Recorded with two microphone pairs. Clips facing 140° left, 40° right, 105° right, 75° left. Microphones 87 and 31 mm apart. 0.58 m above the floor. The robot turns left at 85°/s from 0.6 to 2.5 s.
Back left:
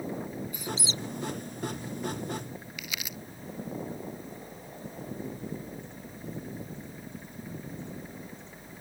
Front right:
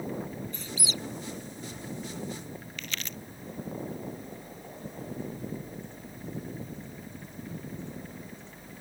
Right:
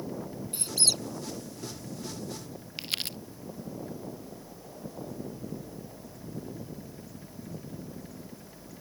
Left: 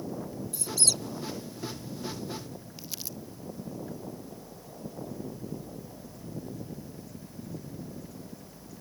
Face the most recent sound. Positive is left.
turn(degrees=-140)